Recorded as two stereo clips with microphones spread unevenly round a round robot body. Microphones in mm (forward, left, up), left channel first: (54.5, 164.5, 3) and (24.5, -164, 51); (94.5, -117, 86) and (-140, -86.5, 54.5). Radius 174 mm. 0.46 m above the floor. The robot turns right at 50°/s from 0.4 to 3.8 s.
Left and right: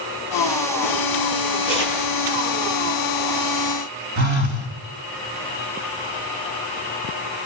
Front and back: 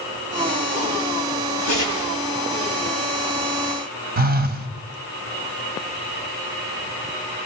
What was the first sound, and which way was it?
Tearing paper, 90° left.